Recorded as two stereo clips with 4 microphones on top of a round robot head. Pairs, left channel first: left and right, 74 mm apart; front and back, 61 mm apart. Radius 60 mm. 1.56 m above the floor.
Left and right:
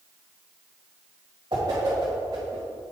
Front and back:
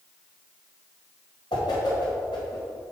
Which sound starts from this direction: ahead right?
A whoosh, at 1.5 s.